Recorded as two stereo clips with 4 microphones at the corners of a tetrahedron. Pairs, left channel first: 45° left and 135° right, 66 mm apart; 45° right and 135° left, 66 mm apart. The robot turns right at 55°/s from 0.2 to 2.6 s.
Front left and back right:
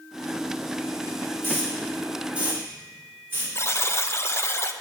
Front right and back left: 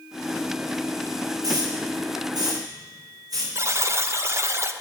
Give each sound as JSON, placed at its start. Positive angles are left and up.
{"t": 1.4, "sound": "a hiss", "azimuth_deg": 100, "distance_m": 5.0}
{"t": 3.5, "sound": "a buzzer", "azimuth_deg": 90, "distance_m": 0.9}